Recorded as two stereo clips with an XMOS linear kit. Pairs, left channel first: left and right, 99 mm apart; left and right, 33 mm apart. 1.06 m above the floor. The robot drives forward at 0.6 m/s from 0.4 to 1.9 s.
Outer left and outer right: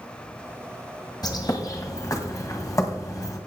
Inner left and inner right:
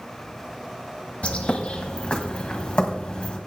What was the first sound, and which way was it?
A bird, 40° left (ahead or behind).